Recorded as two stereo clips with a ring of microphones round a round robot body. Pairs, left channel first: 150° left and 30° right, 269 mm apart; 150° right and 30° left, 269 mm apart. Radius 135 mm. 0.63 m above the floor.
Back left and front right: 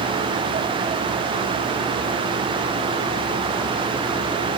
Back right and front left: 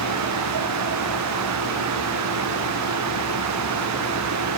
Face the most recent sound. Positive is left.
No sound to turn to.